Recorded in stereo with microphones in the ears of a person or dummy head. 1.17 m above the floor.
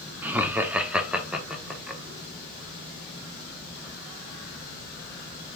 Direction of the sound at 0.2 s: 10° right (ahead or behind).